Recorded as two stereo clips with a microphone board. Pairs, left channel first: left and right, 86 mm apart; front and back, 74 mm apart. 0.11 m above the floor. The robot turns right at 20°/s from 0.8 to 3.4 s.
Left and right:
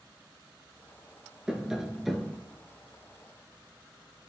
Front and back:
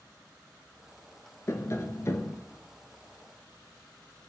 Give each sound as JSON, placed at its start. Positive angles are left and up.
{"t": 1.5, "sound": "tapping", "azimuth_deg": -15, "distance_m": 0.6}